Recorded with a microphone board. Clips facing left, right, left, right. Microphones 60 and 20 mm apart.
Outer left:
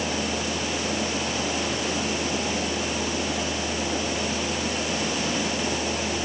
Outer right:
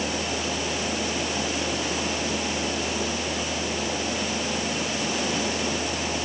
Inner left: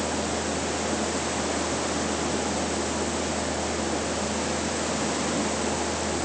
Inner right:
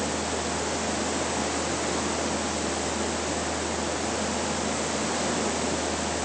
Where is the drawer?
I don't hear a drawer.